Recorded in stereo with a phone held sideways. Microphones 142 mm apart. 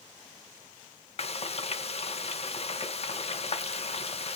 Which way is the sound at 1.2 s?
50° left (ahead or behind).